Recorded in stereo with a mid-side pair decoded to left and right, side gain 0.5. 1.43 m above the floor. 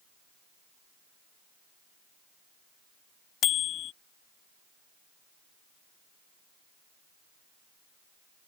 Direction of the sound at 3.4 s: 65° left.